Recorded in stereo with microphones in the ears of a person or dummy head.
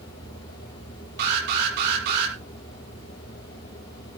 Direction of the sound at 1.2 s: 60° right (ahead or behind).